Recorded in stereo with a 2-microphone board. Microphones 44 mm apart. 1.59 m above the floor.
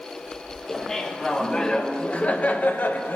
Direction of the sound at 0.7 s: 10° left (ahead or behind).